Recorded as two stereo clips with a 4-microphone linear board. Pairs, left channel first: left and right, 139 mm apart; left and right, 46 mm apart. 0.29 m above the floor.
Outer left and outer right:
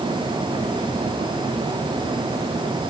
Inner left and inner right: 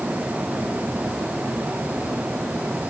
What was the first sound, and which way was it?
Only background noise.